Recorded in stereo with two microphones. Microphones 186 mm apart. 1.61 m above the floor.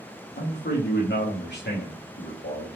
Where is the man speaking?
70° left (ahead or behind), 1.0 m.